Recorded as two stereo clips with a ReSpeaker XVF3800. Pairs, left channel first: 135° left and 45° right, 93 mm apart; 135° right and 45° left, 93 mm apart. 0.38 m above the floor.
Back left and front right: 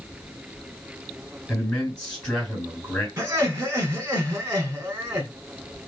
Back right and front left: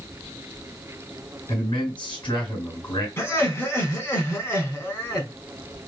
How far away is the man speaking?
About 2.5 m.